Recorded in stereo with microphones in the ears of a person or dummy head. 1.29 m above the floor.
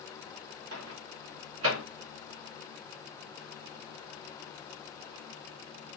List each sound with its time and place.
0.7 s a microwave: 85° right, 1.5 m